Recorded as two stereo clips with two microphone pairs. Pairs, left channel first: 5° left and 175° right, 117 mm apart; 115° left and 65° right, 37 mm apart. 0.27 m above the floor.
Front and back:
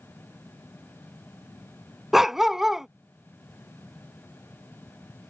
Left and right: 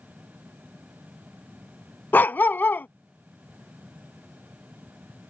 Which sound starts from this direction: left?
A dog barking, at 2.1 s.